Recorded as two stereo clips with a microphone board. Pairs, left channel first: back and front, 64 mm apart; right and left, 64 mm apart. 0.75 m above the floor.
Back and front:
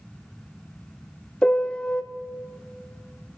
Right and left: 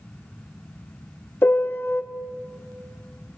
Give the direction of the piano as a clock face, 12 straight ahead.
4 o'clock.